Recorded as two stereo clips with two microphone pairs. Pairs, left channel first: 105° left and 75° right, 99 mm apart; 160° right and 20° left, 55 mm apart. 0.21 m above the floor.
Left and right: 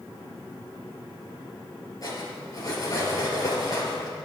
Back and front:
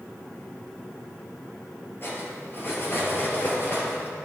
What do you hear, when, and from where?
2.0 s cutlery clinking: 155° left, 2.5 m